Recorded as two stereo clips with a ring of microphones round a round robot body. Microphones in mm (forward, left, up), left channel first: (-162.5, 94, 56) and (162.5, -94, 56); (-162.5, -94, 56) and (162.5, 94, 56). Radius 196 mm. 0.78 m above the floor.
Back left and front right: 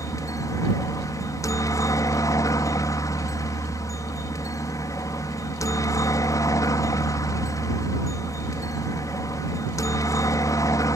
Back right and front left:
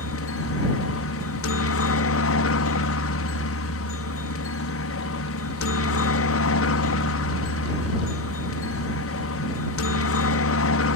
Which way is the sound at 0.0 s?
135° right.